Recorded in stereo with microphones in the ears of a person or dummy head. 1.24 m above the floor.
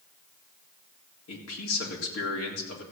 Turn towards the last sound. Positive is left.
turn(degrees=85)